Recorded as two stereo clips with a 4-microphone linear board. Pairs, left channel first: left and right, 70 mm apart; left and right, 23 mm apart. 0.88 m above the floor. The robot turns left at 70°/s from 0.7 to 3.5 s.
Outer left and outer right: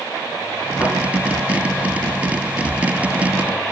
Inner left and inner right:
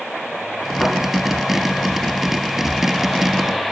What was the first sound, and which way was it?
A thud, 60° left (ahead or behind).